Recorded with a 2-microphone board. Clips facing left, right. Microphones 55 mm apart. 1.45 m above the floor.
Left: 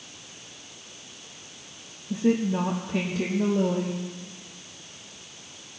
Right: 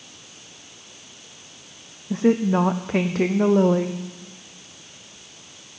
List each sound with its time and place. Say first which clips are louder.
2.1 s a woman speaking: right 5 dB; 60° right (ahead or behind), 0.6 m